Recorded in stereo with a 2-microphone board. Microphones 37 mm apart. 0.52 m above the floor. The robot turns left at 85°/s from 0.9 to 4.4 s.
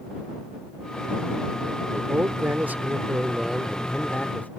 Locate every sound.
1.9 s a man speaking: 45° right; by 4.5 s 100° left